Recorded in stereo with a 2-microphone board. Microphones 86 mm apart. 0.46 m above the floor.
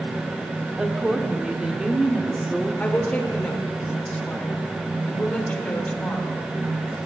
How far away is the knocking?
I don't hear knocking.